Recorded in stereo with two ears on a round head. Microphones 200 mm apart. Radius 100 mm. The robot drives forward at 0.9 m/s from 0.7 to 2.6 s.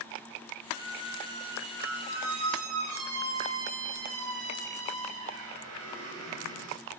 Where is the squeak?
50° right (ahead or behind), 5 m; by 6.8 s 70° right (ahead or behind), 4 m.